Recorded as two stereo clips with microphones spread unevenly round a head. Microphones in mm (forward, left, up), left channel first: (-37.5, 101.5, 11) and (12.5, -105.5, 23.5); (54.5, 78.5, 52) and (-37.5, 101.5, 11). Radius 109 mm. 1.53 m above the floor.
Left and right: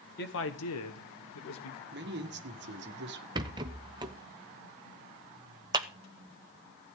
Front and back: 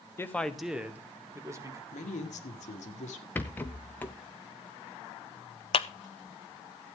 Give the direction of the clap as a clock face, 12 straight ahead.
12 o'clock.